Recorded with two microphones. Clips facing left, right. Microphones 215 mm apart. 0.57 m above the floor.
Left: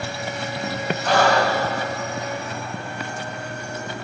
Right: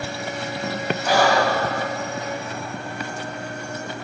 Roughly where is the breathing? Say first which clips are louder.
Even; centre.